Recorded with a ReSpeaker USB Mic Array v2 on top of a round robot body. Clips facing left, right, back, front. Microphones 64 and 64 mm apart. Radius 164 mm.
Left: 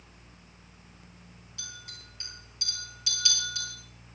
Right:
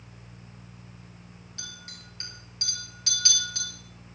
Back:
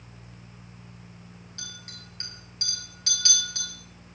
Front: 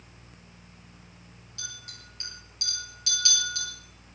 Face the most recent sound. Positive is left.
turn(degrees=-130)